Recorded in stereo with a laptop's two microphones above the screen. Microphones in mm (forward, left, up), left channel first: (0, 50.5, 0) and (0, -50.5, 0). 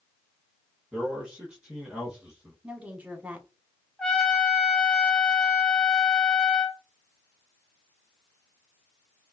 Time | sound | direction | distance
0.9 | a man speaking | 10° right (ahead or behind) | 0.8 m
2.6 | a woman speaking | 15° right (ahead or behind) | 1.1 m
4.0 | a trumpet | 5° left (ahead or behind) | 0.7 m